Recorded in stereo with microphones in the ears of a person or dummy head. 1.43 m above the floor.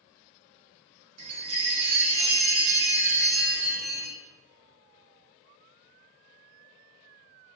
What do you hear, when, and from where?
1.2 s a chime: 40° right (ahead or behind), 1.4 m